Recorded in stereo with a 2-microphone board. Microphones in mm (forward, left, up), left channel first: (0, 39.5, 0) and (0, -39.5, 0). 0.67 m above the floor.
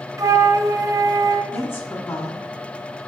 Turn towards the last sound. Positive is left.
turn(degrees=30)  # may be behind; listen again after turning